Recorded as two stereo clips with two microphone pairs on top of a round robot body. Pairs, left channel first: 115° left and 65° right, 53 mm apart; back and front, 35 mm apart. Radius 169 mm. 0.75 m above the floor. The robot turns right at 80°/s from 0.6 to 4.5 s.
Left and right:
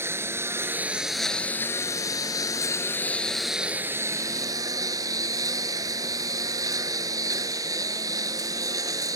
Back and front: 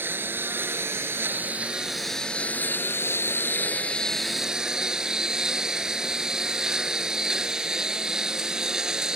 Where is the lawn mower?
20° right; by 9.2 s 70° right.